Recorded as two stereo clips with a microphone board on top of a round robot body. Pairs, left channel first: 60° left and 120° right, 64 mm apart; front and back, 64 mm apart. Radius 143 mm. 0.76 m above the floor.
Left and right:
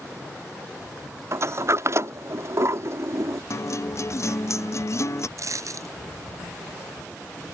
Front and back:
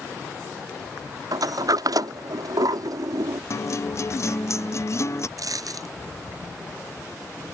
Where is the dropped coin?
155° right.